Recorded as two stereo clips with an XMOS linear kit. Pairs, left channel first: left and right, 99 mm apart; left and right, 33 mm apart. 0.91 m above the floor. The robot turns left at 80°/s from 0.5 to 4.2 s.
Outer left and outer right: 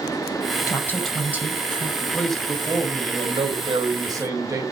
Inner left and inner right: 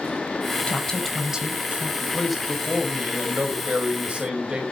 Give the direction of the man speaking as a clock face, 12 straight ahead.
11 o'clock.